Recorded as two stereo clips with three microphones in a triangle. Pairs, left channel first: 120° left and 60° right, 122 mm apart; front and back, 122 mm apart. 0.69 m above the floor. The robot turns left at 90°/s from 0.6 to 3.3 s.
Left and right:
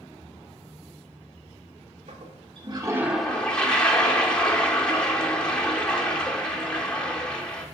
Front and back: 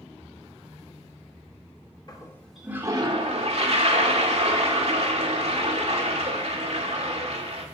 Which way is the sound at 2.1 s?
50° right.